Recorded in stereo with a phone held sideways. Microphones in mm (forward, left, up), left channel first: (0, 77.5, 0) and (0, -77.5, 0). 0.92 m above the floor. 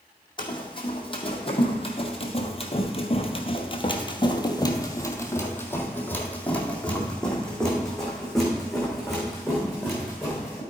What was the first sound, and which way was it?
Running footsteps, 30° left (ahead or behind).